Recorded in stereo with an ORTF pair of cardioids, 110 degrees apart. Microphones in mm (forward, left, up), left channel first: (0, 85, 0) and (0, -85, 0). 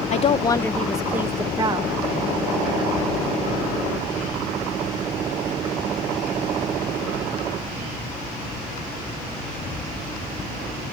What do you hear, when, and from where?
0.1 s a woman speaking: 45° left, 0.7 m; by 1.9 s 30° right, 1.2 m